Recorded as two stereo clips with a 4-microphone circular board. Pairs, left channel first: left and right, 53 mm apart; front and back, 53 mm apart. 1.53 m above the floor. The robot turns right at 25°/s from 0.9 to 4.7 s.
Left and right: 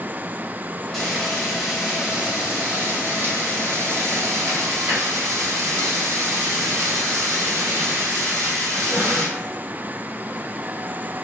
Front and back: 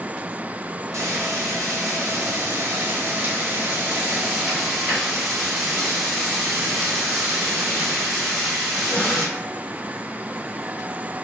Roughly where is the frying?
Behind.